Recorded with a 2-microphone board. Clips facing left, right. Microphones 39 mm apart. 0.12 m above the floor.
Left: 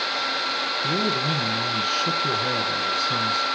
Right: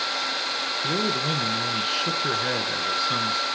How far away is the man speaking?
About 1.2 m.